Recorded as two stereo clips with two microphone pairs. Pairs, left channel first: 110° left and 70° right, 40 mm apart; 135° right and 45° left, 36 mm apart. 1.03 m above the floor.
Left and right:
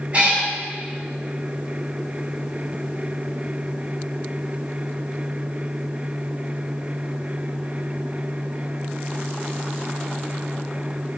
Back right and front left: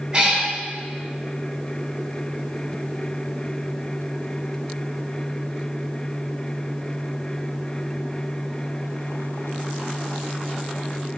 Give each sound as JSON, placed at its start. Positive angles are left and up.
{"t": 0.1, "sound": "a cat meowing", "azimuth_deg": -20, "distance_m": 1.6}